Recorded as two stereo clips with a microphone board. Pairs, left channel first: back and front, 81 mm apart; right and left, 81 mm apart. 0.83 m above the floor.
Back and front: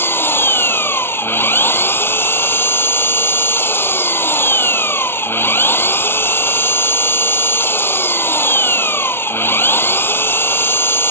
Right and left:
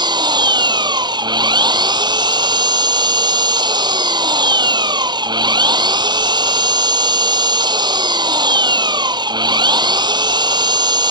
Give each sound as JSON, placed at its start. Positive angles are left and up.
{"t": 0.0, "sound": "an engine running", "azimuth_deg": 120}